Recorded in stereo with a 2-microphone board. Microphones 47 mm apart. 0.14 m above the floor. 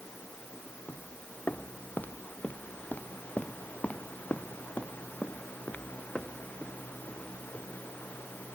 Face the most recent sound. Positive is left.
turn(degrees=30)  # may be behind; listen again after turning